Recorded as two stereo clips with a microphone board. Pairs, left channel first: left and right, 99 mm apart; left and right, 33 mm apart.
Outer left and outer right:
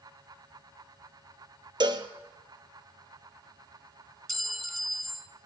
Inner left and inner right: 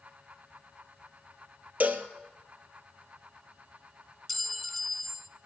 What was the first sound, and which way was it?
A cowbell, 50° right (ahead or behind).